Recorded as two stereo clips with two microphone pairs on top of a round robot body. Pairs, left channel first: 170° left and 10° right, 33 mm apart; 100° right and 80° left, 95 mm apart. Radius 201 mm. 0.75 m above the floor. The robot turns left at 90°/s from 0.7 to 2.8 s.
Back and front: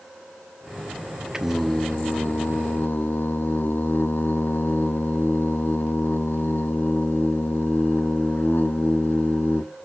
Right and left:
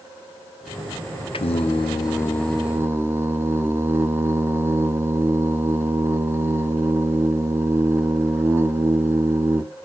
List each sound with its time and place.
1.3 s singing: 80° right, 0.6 m; by 9.6 s 145° left, 0.6 m